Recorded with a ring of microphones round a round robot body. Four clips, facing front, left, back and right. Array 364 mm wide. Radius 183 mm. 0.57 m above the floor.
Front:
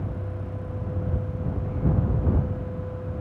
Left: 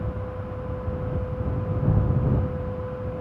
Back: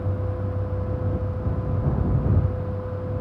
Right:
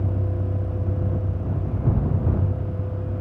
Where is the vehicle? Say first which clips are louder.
Right 3 dB, back 5 dB; 105° right; by 3.2 s 100° right.